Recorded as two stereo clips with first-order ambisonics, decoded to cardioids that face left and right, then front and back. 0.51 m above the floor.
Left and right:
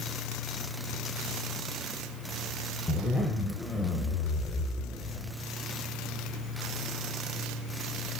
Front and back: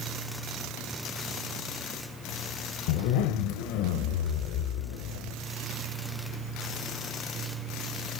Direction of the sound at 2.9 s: 10° left.